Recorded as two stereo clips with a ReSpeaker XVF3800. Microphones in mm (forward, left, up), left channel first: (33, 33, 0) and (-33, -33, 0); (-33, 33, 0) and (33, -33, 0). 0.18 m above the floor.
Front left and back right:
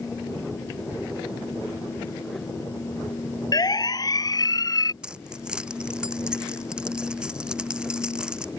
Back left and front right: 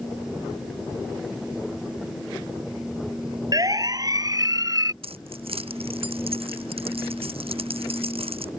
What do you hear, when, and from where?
3.5 s a siren: straight ahead
5.0 s keys jangling: 55° right